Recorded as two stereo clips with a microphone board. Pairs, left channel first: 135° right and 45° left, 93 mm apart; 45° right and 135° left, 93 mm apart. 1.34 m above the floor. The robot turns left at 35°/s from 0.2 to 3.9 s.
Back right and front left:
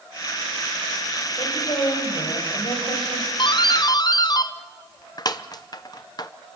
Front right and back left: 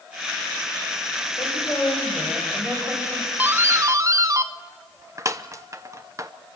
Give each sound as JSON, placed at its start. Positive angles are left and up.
{"t": 1.4, "sound": "a woman speaking", "azimuth_deg": -95, "distance_m": 6.0}
{"t": 3.4, "sound": "a doorbell", "azimuth_deg": -155, "distance_m": 0.8}